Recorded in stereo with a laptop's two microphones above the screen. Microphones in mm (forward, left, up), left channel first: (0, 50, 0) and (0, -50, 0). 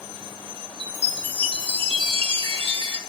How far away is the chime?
About 3 m.